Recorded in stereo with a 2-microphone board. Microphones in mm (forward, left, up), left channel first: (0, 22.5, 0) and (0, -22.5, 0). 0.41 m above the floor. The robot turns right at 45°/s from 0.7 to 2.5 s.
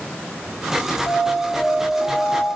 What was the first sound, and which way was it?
An alarm, 90° left.